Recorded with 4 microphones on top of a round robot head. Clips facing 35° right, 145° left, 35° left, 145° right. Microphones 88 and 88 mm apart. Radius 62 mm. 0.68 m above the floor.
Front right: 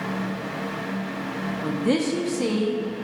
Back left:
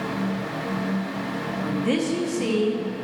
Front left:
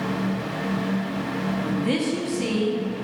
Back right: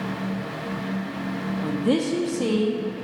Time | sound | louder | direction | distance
1.6 | a woman speaking | front right 1 dB, back right 4 dB | 105° right | 1.5 m